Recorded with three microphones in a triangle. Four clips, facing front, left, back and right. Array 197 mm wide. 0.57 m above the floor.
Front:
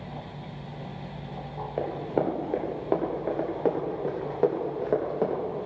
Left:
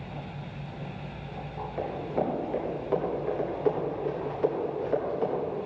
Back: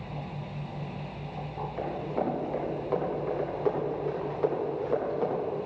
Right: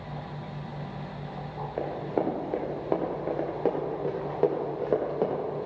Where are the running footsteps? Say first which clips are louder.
Right 1 dB, front 4 dB; 30° right, 5.5 m; by 5.4 s 50° right, 6.5 m.